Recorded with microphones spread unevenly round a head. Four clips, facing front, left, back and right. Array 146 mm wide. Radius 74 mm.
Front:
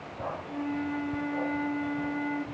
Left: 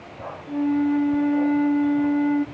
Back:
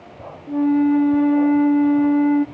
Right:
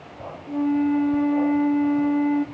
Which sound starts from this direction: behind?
A flute, at 0.5 s.